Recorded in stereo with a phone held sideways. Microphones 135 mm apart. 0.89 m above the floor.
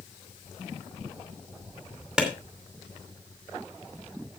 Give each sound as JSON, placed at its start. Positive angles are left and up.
{"t": 2.2, "sound": "a clap", "side_deg": -5, "distance_m": 2.5}